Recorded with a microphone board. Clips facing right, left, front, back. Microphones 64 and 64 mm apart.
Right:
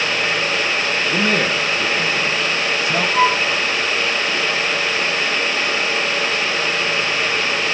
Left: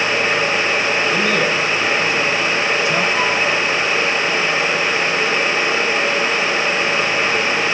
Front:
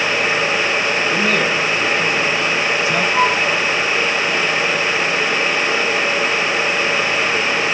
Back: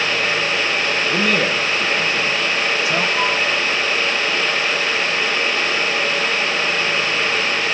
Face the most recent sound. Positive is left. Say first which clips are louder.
# right 2 dB, front 4 dB
turn(degrees=-40)